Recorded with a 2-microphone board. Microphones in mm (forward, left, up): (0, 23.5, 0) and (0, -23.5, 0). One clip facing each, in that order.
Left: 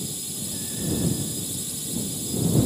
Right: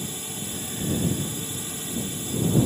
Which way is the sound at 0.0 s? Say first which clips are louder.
Right 1 dB; 40° right (ahead or behind).